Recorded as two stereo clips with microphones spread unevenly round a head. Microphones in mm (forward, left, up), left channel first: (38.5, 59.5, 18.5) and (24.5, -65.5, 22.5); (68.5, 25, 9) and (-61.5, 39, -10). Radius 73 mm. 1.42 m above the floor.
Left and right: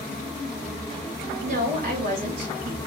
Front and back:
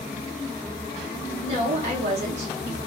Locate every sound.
1.4 s a woman speaking: 140° right, 2.5 m